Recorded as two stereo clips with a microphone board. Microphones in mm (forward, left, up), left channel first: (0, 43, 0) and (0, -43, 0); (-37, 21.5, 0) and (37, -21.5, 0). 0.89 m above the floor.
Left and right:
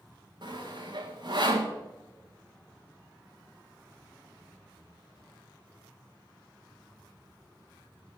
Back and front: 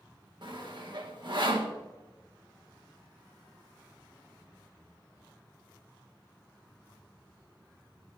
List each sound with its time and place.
0.4 s sawing: 60° right, 2 m